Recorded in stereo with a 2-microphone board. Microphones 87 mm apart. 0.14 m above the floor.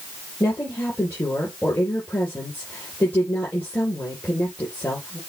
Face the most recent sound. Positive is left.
turn(degrees=25)  # may be behind; listen again after turning